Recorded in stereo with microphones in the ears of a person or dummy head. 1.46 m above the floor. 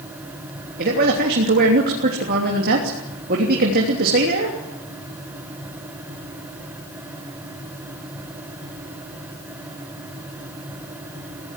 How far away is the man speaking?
About 3 m.